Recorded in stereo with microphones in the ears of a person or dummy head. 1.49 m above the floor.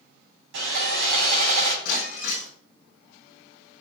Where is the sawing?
70° right (ahead or behind), 3.5 m.